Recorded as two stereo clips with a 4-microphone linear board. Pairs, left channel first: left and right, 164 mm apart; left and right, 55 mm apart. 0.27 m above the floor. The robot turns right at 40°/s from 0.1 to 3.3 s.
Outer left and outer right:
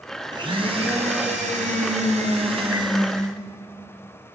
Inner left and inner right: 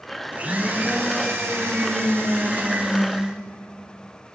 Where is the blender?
145° right, 1.9 m; by 3.4 s 25° right, 1.9 m.